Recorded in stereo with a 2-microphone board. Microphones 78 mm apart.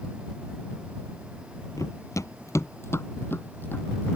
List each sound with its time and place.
1.8 s running footsteps: 45° left (ahead or behind); by 4.2 s 25° left (ahead or behind)